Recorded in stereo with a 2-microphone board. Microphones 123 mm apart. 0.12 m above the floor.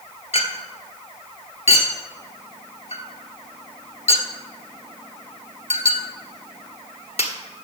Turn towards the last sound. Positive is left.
turn(degrees=60)  # may be behind; listen again after turning